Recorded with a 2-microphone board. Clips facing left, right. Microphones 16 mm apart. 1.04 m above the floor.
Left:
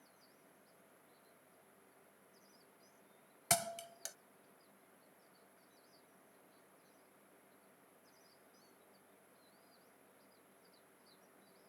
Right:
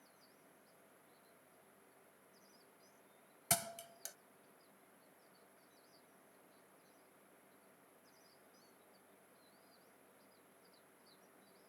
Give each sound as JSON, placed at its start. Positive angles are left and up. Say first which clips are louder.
{"t": 3.5, "sound": "a thud", "louder": "left 3 dB", "side_deg": 15}